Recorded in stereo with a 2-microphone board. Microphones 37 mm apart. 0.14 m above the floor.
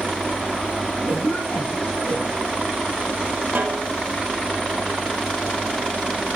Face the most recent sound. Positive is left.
turn(degrees=-55)  # may be behind; listen again after turning